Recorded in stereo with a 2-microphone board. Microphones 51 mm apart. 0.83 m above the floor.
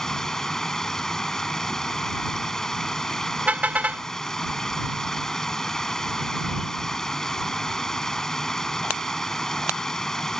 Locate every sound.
0.0 s running water: 10° left (ahead or behind)
3.5 s a car horn: 30° right (ahead or behind)